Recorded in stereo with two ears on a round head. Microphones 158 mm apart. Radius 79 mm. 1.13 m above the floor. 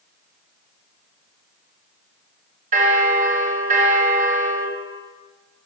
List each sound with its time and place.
2.7 s a bell: 45° right (ahead or behind), 1.3 m